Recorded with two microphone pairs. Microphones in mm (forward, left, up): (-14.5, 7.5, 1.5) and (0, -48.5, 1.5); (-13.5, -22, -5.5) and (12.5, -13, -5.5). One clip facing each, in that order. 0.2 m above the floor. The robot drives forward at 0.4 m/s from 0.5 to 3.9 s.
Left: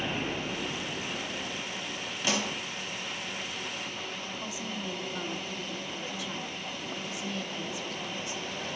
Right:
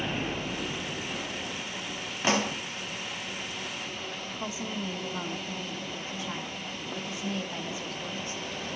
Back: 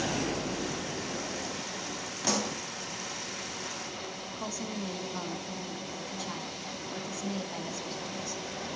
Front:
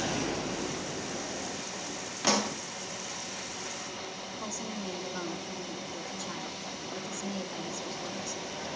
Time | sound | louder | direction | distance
2.2 | a pop | right 4 dB, front 3 dB | 40° right | 0.9 m
4.4 | a woman speaking | right 5 dB, back 2 dB | 110° right | 1.8 m